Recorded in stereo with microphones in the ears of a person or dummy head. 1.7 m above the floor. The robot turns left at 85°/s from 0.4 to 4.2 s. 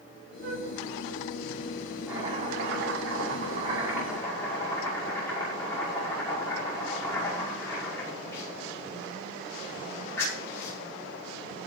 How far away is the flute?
About 3.5 m.